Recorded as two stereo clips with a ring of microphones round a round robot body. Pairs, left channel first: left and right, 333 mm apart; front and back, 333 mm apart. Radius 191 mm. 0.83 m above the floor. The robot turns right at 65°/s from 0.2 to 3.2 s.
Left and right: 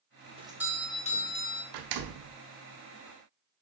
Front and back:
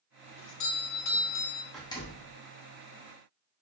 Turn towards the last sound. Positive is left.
turn(degrees=5)